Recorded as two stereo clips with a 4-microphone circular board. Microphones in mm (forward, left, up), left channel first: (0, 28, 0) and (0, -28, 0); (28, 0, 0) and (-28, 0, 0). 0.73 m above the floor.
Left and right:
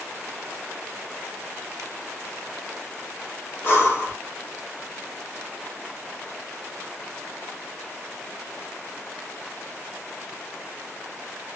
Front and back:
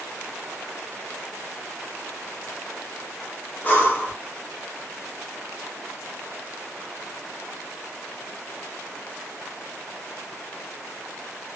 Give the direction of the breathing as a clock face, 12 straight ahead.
10 o'clock.